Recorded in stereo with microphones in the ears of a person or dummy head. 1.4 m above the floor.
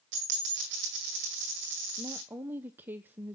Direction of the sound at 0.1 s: 45° right (ahead or behind).